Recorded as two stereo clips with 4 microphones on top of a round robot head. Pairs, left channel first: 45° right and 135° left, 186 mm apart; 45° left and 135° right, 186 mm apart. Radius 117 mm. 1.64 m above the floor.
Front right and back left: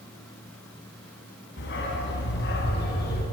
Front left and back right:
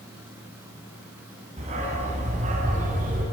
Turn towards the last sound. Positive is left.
turn(degrees=-85)